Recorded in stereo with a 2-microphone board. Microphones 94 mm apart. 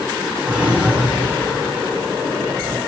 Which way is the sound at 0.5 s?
10° right (ahead or behind).